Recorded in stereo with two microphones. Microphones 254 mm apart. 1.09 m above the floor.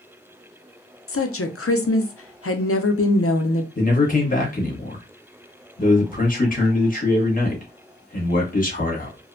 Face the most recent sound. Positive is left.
turn(degrees=35)  # may be behind; listen again after turning